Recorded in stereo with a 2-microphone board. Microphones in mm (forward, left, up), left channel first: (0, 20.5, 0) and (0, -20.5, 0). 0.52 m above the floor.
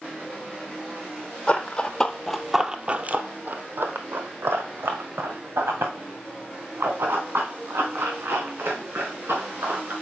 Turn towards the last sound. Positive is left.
turn(degrees=-70)  # may be behind; listen again after turning